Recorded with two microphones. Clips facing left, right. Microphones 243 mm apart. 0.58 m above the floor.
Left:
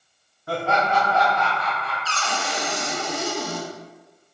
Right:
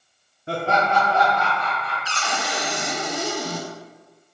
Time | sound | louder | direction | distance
0.5 | laughter | right 1 dB | 25° right (ahead or behind) | 0.7 m
2.0 | a cupboard door | even | 15° right (ahead or behind) | 0.9 m